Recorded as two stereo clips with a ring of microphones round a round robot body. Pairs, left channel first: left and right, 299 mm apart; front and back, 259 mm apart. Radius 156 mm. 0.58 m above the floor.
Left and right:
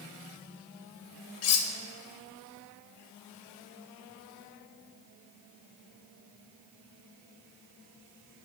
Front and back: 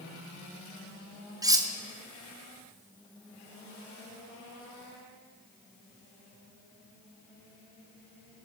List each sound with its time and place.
1.4 s cutlery clinking: 105° left, 0.7 m